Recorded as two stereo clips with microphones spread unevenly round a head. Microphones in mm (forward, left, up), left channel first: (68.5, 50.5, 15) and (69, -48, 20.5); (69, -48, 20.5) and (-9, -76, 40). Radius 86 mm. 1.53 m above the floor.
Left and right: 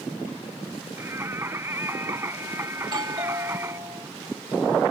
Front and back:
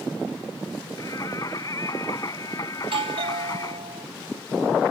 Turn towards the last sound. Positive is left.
turn(degrees=-155)